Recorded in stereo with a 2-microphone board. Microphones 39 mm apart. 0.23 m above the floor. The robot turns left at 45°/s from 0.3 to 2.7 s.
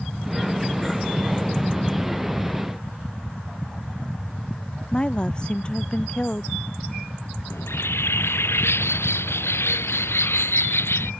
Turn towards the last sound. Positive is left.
turn(degrees=90)